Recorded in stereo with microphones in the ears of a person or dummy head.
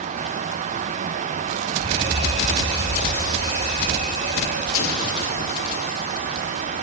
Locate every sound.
1.8 s an alarm: 30° right (ahead or behind), 5.5 m
4.7 s an explosion: 75° left (ahead or behind), 2.5 m